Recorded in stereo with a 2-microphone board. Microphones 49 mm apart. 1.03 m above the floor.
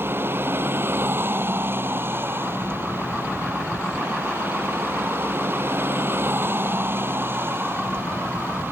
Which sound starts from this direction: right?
A vehicle, at 0.0 s.